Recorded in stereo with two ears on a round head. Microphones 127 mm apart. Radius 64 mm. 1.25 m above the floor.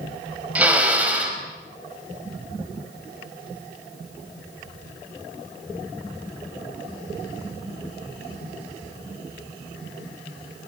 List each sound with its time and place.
0.6 s a drill: 10° right (ahead or behind), 5 m